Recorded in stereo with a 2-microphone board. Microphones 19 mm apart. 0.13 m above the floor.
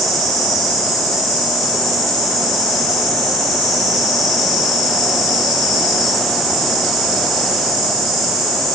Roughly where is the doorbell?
No doorbell in this recording.